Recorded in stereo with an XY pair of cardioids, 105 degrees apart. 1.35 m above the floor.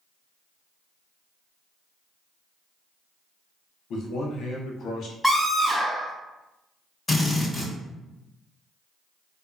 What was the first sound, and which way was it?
A man speaking, 65° left.